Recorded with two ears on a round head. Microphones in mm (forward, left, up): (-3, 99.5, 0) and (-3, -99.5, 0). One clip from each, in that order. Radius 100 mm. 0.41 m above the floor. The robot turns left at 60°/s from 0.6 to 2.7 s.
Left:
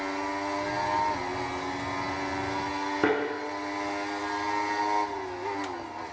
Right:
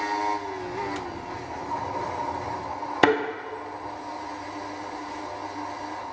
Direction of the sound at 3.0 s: 75° right (ahead or behind).